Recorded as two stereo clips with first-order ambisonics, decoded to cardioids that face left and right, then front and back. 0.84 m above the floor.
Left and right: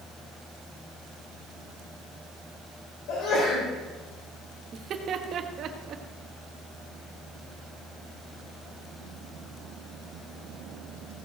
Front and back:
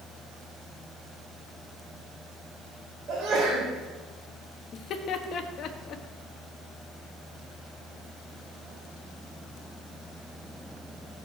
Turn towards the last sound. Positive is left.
turn(degrees=-40)